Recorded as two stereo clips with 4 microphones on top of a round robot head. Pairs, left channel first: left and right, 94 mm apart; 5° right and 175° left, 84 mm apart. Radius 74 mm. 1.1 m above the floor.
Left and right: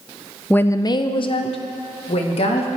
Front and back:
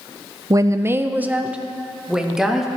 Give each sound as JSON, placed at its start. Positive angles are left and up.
{"t": 0.5, "sound": "a woman speaking", "azimuth_deg": 160, "distance_m": 0.6}